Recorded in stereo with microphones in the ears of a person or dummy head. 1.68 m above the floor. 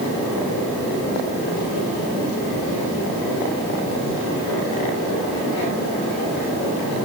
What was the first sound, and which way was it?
Only background noise.